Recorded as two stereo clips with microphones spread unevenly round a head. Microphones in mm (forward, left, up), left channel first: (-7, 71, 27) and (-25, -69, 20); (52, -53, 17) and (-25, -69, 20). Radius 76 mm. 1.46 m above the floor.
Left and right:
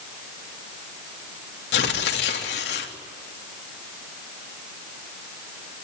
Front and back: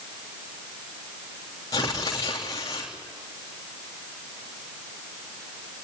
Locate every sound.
1.7 s tearing paper: 75° left, 3.5 m